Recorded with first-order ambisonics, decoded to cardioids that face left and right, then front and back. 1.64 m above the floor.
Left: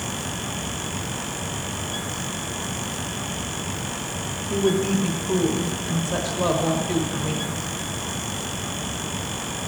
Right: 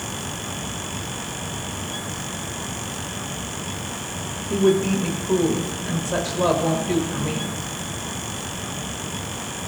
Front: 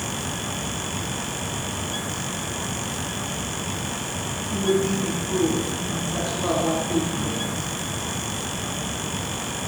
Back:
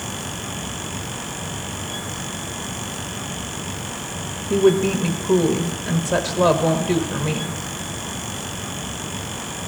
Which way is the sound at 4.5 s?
175° right.